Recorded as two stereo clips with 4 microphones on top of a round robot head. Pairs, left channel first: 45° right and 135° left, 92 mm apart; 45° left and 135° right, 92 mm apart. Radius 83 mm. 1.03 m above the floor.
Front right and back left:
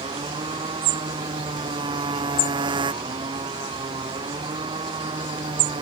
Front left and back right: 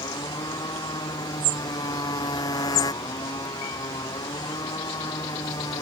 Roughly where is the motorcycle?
Left.